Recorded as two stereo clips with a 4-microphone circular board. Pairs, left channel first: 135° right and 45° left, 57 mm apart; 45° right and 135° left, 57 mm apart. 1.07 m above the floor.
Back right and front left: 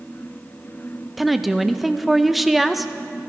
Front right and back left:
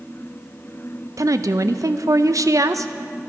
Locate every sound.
1.2 s a woman speaking: 130° left, 0.6 m